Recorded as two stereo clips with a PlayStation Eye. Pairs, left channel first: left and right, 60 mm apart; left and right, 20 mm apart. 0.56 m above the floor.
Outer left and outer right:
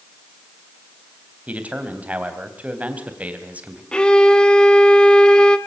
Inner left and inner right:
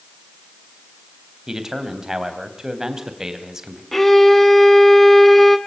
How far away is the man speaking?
About 3.5 m.